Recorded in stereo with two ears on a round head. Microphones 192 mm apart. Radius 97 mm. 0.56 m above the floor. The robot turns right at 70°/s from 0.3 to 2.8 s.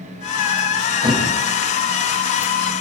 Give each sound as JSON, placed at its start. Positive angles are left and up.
{"t": 1.0, "sound": "a thud", "side_deg": -20, "distance_m": 9.5}